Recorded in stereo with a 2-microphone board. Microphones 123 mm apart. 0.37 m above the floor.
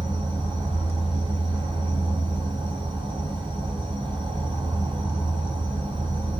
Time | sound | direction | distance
0.0 | an insect | 40° right (ahead or behind) | 1.0 m